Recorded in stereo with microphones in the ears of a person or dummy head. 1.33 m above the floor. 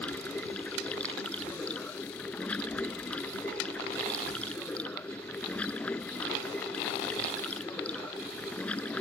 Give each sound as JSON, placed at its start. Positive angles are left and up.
{"t": 0.0, "sound": "running water", "side_deg": 10}